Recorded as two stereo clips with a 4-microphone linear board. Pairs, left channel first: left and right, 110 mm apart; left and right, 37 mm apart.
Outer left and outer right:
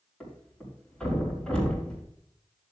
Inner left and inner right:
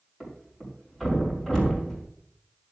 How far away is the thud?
About 4.5 m.